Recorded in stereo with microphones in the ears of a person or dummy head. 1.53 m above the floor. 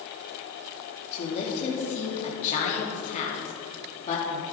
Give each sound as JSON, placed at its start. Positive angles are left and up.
{"t": 1.1, "sound": "a woman speaking", "side_deg": 35, "distance_m": 2.5}